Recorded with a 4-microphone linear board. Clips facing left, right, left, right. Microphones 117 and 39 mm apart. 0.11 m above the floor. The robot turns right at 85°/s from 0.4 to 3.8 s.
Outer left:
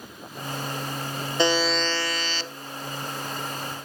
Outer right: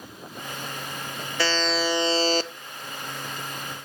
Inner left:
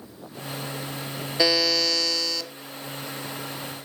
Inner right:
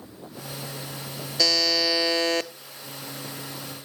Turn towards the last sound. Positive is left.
turn(degrees=0)